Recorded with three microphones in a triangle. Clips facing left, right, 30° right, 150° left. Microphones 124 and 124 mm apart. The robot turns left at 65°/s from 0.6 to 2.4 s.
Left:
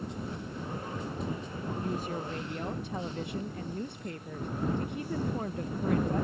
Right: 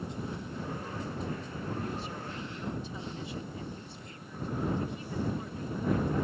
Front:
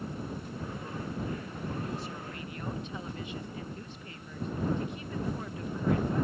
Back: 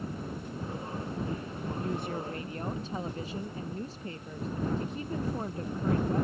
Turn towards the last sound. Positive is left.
turn(degrees=100)